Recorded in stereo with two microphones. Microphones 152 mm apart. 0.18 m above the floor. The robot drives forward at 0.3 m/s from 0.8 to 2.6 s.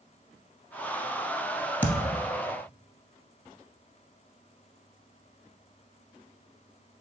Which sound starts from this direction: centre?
A thud, at 1.8 s.